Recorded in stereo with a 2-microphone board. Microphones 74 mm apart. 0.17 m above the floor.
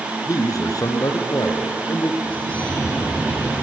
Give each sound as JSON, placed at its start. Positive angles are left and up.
{"t": 0.3, "sound": "a man speaking", "side_deg": 55, "distance_m": 1.8}
{"t": 2.2, "sound": "a bird", "side_deg": 20, "distance_m": 7.0}